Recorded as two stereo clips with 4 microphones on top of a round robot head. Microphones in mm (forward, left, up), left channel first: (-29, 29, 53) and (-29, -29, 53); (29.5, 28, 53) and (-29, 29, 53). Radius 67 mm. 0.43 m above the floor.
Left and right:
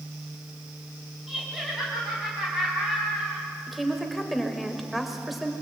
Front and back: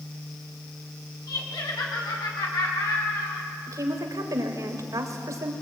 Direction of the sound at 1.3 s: 5° right.